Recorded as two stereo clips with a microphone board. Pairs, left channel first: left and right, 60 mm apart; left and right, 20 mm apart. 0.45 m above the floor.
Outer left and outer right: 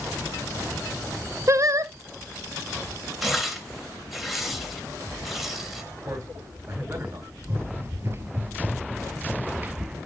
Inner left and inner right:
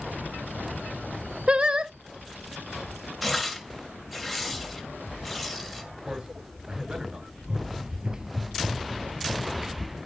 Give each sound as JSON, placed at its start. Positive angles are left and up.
{"t": 1.5, "sound": "singing", "side_deg": -55, "distance_m": 0.7}
{"t": 3.2, "sound": "tearing paper", "side_deg": 0, "distance_m": 2.5}
{"t": 6.0, "sound": "a man speaking", "side_deg": -60, "distance_m": 7.0}
{"t": 7.4, "sound": "running footsteps", "side_deg": -45, "distance_m": 4.5}